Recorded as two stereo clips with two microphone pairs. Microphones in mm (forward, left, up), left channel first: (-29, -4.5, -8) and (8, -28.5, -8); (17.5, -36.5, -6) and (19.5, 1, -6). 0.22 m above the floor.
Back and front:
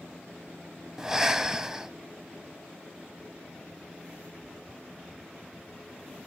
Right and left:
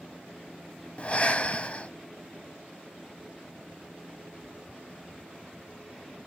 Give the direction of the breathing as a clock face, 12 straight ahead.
3 o'clock.